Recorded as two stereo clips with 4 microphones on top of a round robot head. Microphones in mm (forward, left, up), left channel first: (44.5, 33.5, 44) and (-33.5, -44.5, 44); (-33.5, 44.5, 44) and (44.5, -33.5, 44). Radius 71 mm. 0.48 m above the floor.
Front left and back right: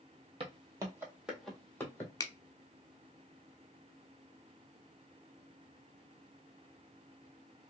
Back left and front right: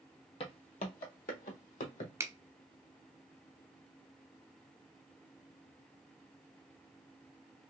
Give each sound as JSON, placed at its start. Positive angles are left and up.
{"t": 0.4, "sound": "footsteps", "azimuth_deg": 180, "distance_m": 1.1}
{"t": 2.2, "sound": "a finger snap", "azimuth_deg": 5, "distance_m": 0.8}